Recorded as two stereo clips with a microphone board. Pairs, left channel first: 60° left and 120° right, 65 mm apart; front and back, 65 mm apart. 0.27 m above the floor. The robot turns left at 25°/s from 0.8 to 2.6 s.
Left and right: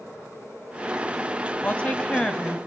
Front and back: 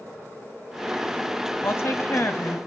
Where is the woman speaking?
5° left, 1.7 m; by 2.6 s 20° right, 1.7 m.